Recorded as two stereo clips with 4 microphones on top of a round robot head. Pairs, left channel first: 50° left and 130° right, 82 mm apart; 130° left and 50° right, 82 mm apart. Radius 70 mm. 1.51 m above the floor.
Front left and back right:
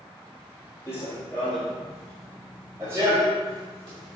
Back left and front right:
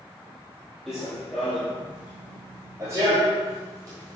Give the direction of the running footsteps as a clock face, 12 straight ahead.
10 o'clock.